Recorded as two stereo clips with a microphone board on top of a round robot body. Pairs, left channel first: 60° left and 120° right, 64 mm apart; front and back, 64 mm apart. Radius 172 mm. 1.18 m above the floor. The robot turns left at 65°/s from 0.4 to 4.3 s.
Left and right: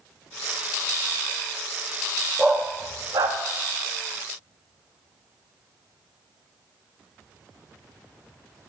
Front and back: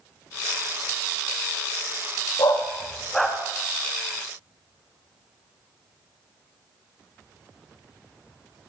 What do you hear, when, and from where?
2.4 s a dog barking: 35° right, 0.7 m; by 3.4 s 95° right, 0.7 m